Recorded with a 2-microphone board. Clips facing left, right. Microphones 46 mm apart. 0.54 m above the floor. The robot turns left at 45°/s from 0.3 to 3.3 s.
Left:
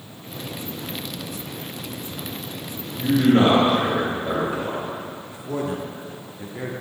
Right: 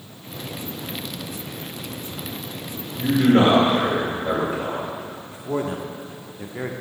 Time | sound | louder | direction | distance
2.9 | a man speaking | even | 15° right (ahead or behind) | 1.7 m
5.3 | a man speaking | right 2 dB | 25° right (ahead or behind) | 0.9 m